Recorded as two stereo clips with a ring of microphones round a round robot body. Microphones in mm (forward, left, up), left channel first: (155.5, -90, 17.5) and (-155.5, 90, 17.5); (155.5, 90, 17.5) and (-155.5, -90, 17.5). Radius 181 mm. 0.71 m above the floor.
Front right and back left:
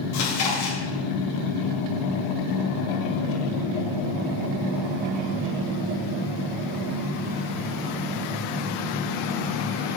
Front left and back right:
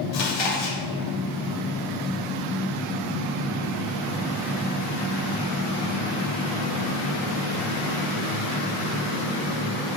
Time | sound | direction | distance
0.1 | chewing | 15° left | 2 m